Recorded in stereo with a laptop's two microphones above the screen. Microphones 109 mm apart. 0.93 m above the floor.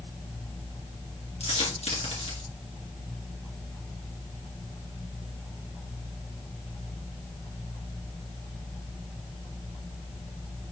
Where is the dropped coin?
75° left (ahead or behind), 3 m.